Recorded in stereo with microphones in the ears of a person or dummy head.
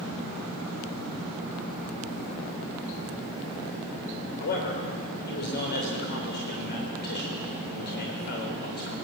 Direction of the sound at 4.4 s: 50° left (ahead or behind).